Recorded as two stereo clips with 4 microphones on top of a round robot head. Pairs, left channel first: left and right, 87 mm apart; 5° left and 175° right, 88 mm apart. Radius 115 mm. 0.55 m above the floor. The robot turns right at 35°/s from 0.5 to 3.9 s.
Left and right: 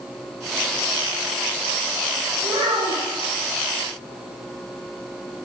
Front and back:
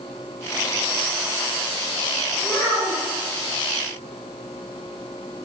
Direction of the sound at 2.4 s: 85° right.